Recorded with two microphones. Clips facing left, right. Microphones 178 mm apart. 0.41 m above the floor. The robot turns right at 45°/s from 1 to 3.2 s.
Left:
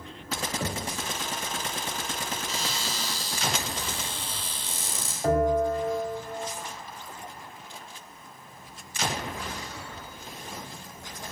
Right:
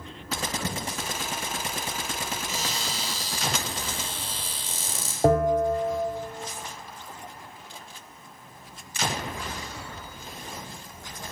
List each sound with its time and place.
0.6 s knocking: 35° left (ahead or behind), 1.0 m
2.5 s a cupboard door: 55° right, 3 m; by 5.1 s 20° right, 3 m
5.2 s a bell: 55° right (ahead or behind), 2.5 m